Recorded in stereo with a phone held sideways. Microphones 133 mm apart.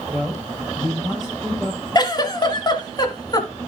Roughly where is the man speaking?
Centre.